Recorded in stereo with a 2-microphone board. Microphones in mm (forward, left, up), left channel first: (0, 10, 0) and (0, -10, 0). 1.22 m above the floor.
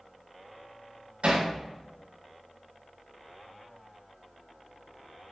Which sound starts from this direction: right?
Hammering, at 1.2 s.